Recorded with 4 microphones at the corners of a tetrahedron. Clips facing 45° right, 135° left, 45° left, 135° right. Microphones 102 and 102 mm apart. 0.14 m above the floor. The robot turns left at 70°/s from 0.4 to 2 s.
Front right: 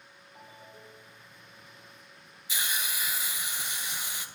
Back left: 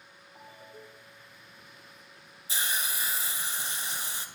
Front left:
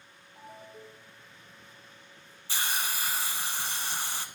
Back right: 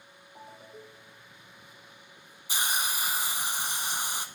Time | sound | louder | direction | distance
0.3 | a ringtone | back left 2 dB, even | 135° right | 2 m
2.5 | a hiss | back left 1 dB, back right 1 dB | 160° left | 0.7 m